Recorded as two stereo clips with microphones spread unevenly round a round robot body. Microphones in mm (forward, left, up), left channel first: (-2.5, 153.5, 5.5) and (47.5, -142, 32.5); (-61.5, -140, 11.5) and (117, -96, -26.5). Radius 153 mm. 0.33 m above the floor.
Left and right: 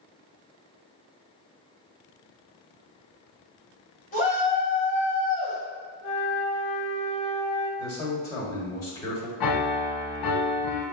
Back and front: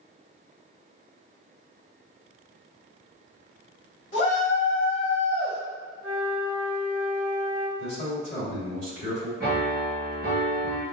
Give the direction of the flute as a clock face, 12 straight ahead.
2 o'clock.